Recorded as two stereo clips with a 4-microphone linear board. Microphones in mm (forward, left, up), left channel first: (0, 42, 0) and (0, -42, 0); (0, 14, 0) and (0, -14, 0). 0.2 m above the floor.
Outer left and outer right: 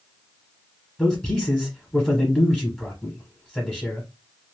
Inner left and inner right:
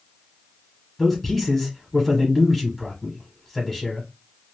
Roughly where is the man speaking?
Centre.